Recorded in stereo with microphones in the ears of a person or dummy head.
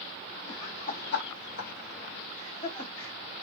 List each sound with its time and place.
0.5 s laughter: 20° left (ahead or behind), 1.3 m; by 3.1 s 30° left (ahead or behind), 2.5 m